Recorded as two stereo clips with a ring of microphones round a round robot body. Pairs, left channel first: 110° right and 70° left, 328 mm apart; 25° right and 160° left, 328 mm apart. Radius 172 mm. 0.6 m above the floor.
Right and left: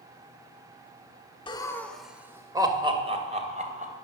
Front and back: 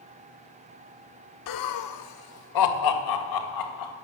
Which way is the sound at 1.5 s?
40° right.